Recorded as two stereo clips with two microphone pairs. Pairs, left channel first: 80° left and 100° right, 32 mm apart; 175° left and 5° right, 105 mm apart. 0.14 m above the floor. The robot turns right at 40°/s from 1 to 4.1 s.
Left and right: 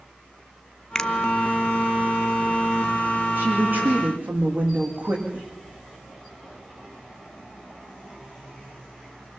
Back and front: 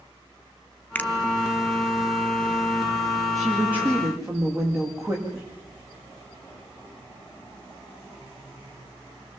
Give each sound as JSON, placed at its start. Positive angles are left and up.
{"t": 0.9, "sound": "a finger snap", "azimuth_deg": 130, "distance_m": 0.9}
{"t": 3.4, "sound": "a woman speaking", "azimuth_deg": -95, "distance_m": 8.5}